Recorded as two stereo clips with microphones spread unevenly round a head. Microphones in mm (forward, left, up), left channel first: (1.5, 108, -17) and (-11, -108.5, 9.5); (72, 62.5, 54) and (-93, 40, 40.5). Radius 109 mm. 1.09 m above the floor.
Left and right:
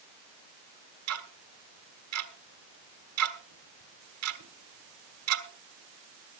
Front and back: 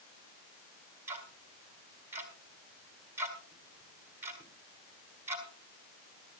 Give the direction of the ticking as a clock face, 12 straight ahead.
3 o'clock.